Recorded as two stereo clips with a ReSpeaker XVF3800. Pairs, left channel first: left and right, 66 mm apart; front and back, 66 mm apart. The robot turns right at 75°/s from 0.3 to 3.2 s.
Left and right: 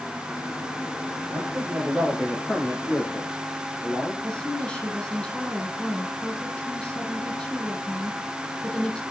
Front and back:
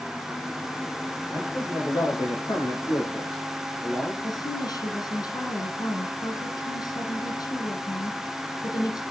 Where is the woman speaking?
15° left, 6 m.